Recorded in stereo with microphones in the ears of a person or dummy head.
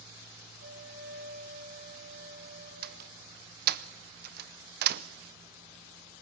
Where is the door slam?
60° right (ahead or behind), 0.7 m.